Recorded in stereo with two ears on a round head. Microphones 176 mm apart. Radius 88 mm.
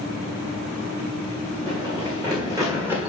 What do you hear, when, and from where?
1.7 s running footsteps: 25° right (ahead or behind), 3 m; by 3.1 s 5° right (ahead or behind), 1.5 m